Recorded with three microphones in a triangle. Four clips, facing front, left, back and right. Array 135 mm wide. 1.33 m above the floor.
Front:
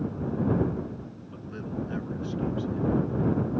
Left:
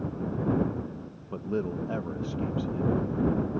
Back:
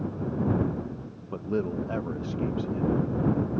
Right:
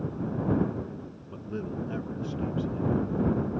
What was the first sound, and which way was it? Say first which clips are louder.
A man speaking: left 5 dB, back 8 dB; 150° left.